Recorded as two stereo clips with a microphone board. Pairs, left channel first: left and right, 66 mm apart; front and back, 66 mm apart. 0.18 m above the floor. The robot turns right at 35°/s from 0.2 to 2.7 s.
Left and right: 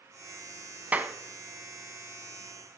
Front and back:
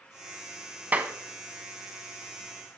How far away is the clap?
About 0.9 m.